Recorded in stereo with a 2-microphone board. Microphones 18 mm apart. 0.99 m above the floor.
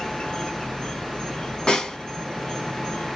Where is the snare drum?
50° left (ahead or behind), 1.2 m.